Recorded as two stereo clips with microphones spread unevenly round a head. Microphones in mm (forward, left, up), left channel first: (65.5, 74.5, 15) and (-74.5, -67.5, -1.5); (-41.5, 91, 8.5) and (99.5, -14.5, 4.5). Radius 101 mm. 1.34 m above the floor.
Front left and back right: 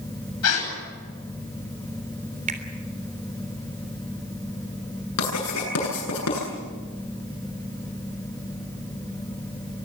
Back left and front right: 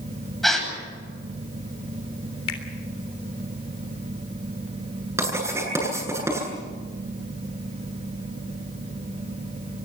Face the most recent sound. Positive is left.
turn(degrees=40)